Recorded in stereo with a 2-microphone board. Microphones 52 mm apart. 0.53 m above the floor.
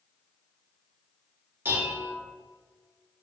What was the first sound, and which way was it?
Dishes clattering, 40° right (ahead or behind).